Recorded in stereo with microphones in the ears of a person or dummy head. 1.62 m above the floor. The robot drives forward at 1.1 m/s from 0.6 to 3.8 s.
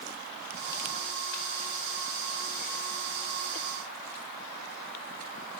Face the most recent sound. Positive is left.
No sound to turn to.